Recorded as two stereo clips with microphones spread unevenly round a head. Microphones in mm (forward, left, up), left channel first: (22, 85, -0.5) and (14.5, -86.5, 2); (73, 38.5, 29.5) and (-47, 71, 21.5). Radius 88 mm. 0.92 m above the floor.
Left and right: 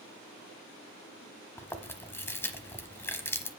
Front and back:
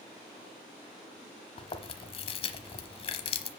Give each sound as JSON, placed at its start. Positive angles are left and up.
{"t": 1.6, "sound": "chewing", "azimuth_deg": 15, "distance_m": 1.1}